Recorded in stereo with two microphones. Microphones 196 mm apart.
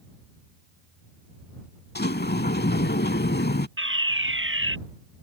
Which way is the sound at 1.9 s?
55° left (ahead or behind).